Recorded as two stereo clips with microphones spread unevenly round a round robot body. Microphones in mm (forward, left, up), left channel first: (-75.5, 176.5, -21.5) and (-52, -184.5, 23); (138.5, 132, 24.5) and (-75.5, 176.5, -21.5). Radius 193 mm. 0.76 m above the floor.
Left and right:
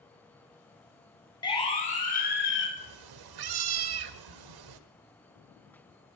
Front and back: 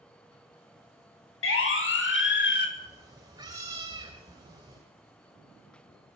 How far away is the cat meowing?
About 1.9 m.